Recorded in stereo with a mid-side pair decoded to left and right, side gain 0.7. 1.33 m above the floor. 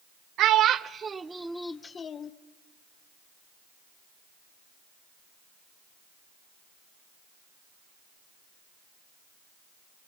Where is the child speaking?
50° right, 0.9 m; by 2.3 s 40° left, 0.8 m.